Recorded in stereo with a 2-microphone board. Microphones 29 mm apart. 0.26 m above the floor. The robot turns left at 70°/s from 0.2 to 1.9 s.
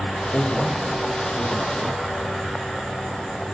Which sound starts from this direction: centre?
A man speaking, at 0.3 s.